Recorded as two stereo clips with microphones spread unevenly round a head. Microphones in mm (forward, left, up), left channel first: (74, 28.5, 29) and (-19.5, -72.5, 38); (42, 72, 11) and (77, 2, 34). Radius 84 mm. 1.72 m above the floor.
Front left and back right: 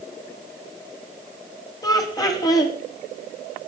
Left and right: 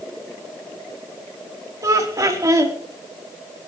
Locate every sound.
1.8 s laughter: 15° right, 5 m